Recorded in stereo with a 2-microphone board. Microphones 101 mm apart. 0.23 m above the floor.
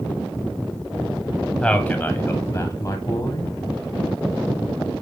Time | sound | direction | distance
1.6 | a man speaking | 10° left (ahead or behind) | 1.1 m